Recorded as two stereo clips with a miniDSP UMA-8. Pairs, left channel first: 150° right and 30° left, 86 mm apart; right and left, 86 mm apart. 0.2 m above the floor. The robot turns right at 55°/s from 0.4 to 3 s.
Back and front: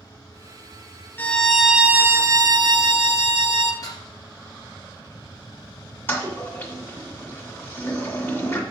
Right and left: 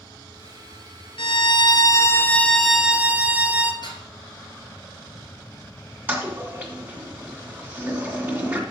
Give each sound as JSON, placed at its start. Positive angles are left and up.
{"t": 1.2, "sound": "a violin", "azimuth_deg": -80, "distance_m": 0.8}
{"t": 3.8, "sound": "dishes clattering", "azimuth_deg": -105, "distance_m": 2.5}
{"t": 6.1, "sound": "a toilet flushing", "azimuth_deg": 155, "distance_m": 2.0}